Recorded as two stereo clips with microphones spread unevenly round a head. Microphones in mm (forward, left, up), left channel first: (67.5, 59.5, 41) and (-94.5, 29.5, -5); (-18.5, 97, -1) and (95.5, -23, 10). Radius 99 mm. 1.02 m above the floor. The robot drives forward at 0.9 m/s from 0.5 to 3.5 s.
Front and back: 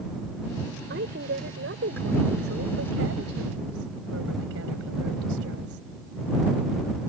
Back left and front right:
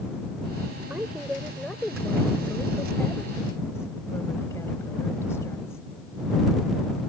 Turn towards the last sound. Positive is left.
turn(degrees=-150)